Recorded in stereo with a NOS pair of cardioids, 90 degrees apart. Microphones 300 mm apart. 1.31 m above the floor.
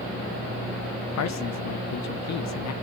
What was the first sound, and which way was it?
A man speaking, 60° left.